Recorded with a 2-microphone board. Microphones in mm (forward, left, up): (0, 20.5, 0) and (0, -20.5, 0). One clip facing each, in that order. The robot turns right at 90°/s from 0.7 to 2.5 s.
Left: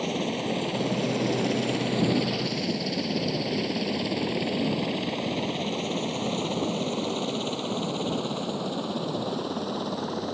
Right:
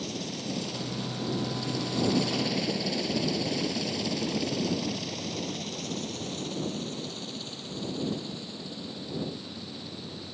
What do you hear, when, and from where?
0.0 s a helicopter: 40° left (ahead or behind); by 10.3 s 60° left (ahead or behind)